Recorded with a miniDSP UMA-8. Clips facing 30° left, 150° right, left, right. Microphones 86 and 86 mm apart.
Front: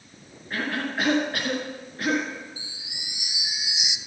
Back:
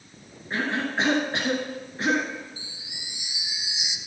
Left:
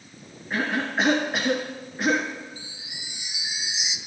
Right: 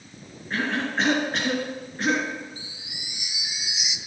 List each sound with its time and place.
0.5 s a cough: 170° left, 1.4 m
2.6 s a chime: 30° left, 0.5 m